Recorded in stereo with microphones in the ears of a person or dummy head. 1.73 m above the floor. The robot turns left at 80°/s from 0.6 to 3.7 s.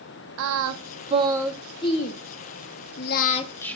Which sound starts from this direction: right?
Singing, at 0.4 s.